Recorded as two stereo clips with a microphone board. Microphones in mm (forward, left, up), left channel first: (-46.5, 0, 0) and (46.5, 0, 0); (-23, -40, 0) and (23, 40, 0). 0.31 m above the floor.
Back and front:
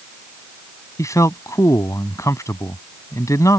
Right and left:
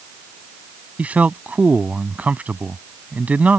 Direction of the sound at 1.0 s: 130° left.